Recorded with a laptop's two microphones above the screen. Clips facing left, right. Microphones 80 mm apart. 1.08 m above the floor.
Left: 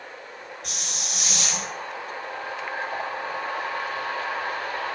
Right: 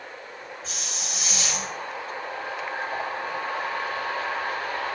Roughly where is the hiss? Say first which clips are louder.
Even; left.